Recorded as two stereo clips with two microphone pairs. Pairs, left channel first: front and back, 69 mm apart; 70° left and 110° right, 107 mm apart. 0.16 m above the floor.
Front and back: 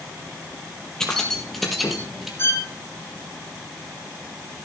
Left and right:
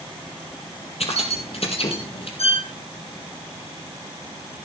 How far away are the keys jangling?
About 3.5 m.